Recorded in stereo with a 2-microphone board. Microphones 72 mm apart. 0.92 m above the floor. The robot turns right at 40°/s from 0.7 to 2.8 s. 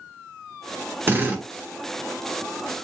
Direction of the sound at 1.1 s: 30° right (ahead or behind).